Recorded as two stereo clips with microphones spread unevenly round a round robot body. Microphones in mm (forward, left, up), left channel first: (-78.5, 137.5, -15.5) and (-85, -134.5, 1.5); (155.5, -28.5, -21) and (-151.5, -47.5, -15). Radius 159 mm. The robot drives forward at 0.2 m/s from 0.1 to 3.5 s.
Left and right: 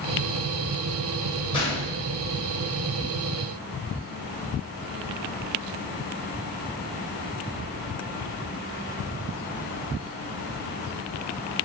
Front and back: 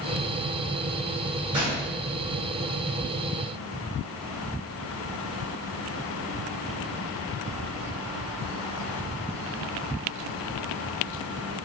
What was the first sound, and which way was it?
A gunshot, 125° left.